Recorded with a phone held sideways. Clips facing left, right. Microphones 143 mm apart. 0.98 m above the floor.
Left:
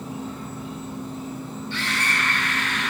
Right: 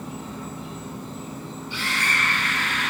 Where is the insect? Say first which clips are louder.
Left 2 dB; 85° right, 2.5 m.